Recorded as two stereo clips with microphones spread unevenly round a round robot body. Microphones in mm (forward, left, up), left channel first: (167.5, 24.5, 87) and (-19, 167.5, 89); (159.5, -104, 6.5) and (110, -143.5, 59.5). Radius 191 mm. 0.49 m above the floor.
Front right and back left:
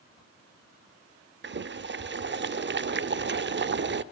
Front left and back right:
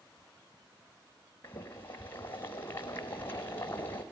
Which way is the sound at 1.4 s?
95° left.